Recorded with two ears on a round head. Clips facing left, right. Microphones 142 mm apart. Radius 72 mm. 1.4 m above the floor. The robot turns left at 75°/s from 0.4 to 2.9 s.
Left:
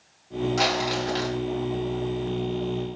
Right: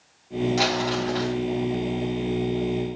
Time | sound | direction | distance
0.6 | crumpling | 175° right | 6.5 m